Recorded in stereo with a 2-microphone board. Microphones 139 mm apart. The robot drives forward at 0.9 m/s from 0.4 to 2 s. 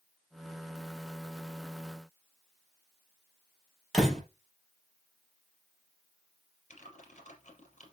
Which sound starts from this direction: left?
Typing on a keyboard, at 6.7 s.